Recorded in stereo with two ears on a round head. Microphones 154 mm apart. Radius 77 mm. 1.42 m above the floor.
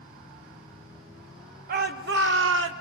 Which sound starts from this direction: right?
A shout, at 1.7 s.